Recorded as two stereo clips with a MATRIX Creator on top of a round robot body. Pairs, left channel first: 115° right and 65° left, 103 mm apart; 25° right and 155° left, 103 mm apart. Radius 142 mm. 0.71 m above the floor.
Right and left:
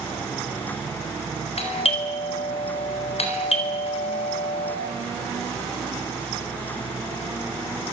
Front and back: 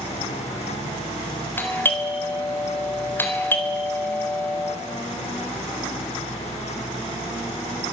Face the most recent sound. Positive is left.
turn(degrees=-95)